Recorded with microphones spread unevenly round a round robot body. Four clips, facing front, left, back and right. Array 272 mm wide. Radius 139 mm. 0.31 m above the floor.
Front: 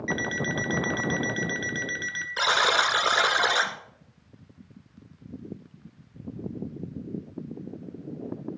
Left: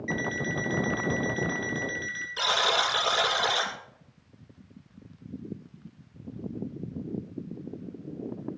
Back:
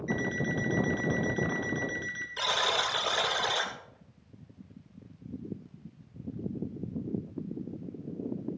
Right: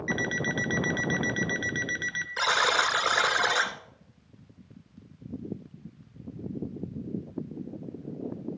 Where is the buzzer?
20° right, 1.6 m.